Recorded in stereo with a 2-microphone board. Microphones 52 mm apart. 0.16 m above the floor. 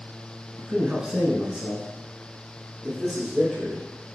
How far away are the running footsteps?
I don't hear running footsteps.